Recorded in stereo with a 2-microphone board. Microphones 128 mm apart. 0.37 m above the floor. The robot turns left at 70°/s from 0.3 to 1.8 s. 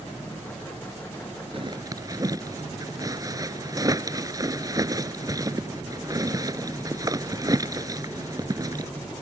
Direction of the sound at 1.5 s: 45° right (ahead or behind).